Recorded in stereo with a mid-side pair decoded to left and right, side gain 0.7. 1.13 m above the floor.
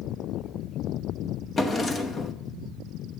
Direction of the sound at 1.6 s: 25° left.